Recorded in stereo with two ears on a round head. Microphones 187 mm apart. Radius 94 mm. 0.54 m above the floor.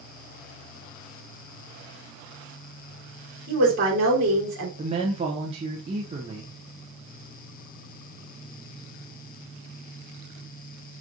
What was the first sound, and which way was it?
A woman speaking, 60° right (ahead or behind).